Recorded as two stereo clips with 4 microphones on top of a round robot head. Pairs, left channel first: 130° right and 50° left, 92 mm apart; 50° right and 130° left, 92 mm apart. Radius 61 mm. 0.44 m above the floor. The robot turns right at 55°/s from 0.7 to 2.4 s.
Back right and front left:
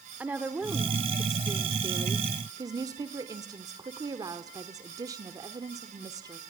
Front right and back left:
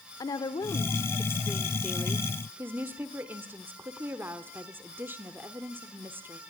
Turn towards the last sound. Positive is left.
turn(degrees=75)